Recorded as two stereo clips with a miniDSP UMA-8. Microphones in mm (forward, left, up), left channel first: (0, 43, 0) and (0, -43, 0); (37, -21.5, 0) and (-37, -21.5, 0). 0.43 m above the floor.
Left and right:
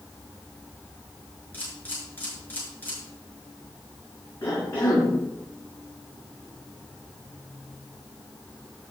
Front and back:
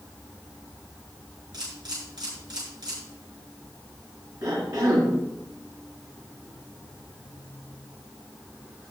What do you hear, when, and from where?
1.5 s a camera shutter: 160° left, 6.5 m
4.4 s a cough: 150° left, 5.5 m